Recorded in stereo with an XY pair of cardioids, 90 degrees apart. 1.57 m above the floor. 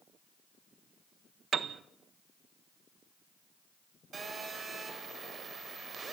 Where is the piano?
60° right, 1.2 m.